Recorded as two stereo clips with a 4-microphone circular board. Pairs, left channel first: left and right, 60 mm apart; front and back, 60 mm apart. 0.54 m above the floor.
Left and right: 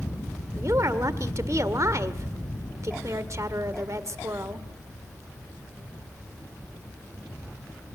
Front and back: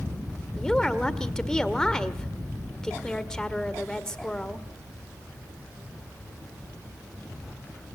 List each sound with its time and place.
0.6 s a woman speaking: 80° right, 1.6 m